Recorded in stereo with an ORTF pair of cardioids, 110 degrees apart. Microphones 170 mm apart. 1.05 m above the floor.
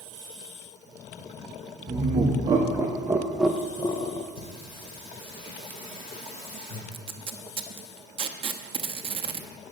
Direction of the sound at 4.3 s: 35° left.